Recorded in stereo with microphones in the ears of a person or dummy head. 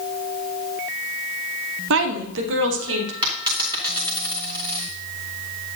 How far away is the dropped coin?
About 2.5 m.